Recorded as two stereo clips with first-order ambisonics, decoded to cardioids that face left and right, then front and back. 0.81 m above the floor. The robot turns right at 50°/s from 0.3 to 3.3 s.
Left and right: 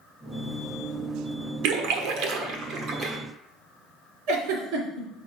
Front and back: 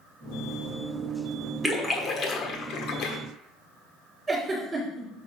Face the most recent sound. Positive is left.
turn(degrees=-105)